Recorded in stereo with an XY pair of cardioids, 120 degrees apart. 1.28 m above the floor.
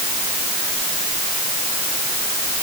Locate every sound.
Only background noise.